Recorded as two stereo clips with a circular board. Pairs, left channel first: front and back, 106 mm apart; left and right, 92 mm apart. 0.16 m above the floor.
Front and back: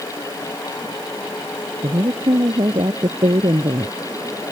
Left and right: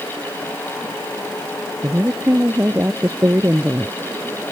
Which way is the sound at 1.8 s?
150° right.